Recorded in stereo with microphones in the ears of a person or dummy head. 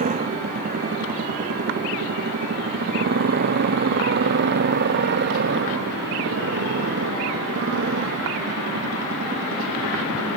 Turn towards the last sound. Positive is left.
turn(degrees=-60)  # may be behind; listen again after turning